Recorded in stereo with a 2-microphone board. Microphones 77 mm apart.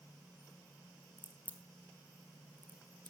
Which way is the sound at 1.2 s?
25° left (ahead or behind).